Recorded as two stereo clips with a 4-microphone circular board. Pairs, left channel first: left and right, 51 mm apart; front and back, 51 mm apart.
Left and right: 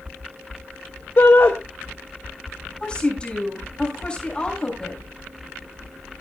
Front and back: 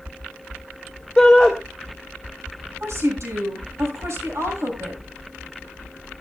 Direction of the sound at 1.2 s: 80° left.